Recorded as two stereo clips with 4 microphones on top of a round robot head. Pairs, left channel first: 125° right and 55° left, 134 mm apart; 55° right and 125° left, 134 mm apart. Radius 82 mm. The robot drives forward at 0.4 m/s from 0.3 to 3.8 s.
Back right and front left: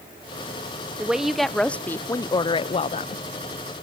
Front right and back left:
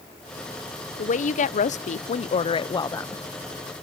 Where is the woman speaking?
30° right, 0.8 m; by 3.2 s 125° right, 0.6 m.